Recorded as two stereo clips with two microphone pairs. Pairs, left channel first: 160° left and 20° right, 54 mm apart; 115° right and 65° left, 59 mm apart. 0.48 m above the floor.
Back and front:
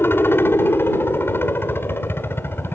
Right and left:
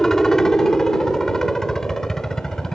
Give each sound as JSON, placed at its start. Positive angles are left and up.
{"t": 0.0, "sound": "a helicopter", "azimuth_deg": 165}